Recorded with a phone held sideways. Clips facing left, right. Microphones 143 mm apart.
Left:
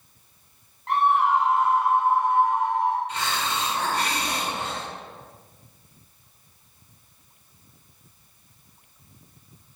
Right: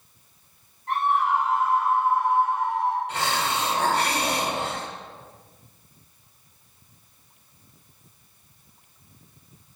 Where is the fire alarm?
I don't hear a fire alarm.